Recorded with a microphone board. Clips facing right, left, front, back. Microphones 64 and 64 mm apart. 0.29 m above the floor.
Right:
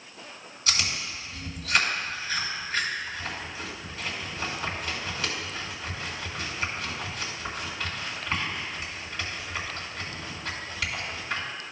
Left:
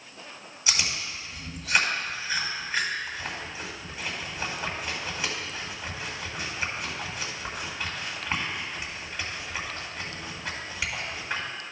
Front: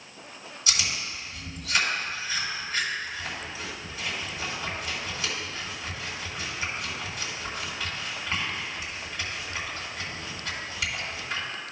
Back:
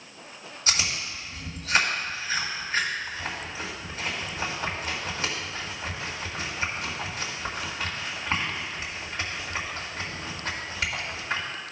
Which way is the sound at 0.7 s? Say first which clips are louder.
Even, back 2 dB; 150° left.